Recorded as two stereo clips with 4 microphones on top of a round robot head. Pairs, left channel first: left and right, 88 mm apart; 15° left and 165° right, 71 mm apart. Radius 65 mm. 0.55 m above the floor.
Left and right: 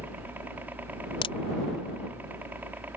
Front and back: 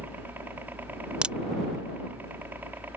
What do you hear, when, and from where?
0.0 s a helicopter: 140° right
1.2 s a crack: 120° left